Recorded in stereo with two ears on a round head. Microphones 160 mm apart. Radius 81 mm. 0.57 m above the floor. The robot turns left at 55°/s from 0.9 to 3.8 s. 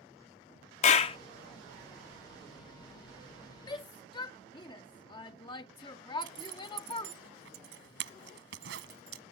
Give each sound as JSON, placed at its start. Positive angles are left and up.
{"t": 0.8, "sound": "a clap", "side_deg": 35}
{"t": 3.7, "sound": "a shout", "side_deg": 25}
{"t": 6.2, "sound": "a zipper", "side_deg": -75}